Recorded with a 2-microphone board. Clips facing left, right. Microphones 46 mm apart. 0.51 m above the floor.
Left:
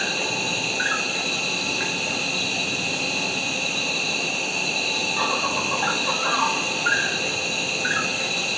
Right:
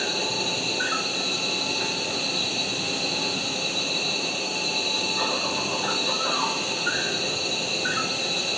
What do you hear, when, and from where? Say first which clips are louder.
0.0 s an insect: left 2 dB; 55° left (ahead or behind), 1.2 m